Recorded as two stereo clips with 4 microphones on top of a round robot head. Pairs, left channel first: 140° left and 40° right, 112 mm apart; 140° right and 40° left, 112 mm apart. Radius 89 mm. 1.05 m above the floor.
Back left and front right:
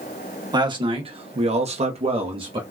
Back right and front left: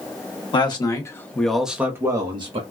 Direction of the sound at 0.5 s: 90° right.